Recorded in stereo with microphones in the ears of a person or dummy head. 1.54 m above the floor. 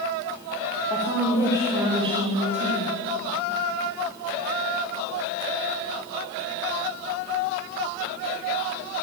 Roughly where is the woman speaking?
Centre.